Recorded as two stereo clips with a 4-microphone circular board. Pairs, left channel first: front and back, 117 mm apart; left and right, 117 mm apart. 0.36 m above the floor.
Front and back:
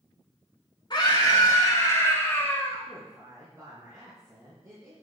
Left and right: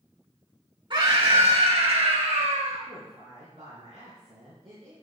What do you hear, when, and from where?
0.9 s a scream: 50° right, 4 m; by 2.8 s 75° right, 4.5 m
2.9 s a woman speaking: 120° right, 4 m